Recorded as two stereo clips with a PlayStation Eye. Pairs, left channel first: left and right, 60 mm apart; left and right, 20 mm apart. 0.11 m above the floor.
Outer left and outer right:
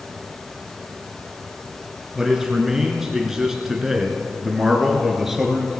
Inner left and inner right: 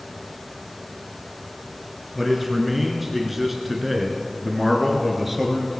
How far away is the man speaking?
About 1.6 m.